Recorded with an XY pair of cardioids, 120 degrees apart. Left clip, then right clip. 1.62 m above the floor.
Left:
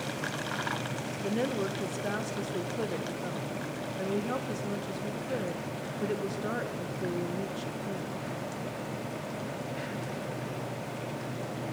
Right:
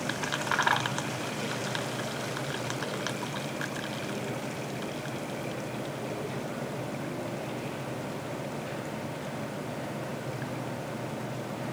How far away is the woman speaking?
About 1.8 m.